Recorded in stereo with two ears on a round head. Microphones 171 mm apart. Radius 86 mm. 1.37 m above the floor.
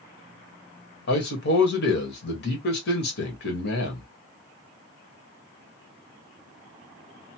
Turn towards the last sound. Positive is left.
turn(degrees=60)  # may be behind; listen again after turning